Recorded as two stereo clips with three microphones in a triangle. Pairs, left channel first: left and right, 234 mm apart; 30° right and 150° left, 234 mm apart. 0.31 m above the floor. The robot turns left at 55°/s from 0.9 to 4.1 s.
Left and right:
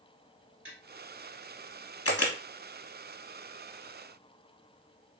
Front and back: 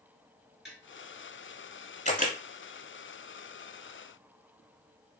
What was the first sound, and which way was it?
Tapping, 120° right.